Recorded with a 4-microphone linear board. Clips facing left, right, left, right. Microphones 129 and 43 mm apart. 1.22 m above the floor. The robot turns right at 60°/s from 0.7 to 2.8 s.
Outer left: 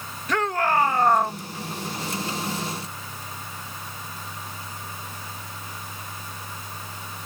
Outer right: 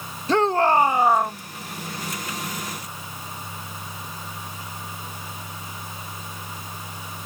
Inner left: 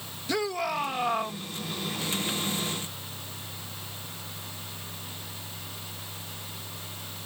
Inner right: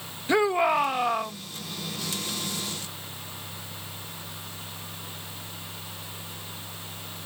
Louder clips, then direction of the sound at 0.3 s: Outer right 5 dB, inner right 7 dB; 30° right.